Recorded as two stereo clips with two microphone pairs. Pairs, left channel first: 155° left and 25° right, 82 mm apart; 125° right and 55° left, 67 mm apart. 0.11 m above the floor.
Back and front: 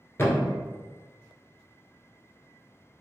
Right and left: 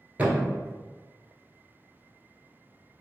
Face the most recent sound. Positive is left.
turn(degrees=115)